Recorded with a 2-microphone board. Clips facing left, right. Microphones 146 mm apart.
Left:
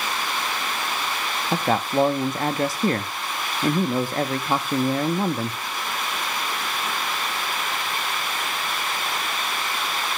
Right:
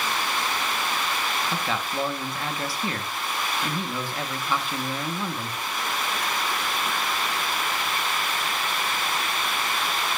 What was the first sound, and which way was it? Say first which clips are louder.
A man speaking: left 7 dB; 45° left (ahead or behind).